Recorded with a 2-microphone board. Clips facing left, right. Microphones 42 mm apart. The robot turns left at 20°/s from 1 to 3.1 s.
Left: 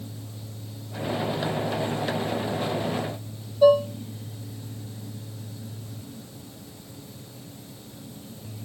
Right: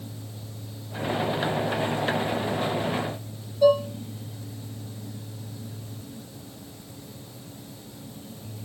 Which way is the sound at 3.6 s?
20° left (ahead or behind).